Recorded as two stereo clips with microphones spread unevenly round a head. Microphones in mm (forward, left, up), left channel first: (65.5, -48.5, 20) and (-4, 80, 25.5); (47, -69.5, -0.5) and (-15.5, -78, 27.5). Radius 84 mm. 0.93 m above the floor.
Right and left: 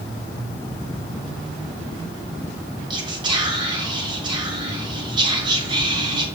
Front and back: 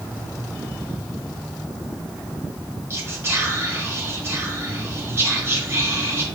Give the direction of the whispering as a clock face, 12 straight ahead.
8 o'clock.